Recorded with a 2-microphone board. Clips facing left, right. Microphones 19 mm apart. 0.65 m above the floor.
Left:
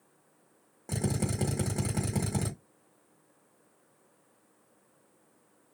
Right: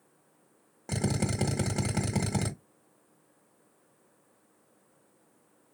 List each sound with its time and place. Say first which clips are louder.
0.9 s a drill: right 2 dB; 25° right (ahead or behind), 1.5 m